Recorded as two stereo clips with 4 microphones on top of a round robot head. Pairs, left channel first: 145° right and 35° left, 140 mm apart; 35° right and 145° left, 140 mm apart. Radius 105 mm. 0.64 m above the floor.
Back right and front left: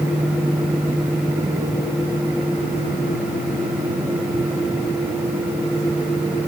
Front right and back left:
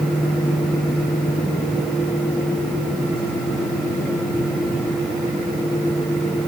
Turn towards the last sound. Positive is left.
No sound to turn to.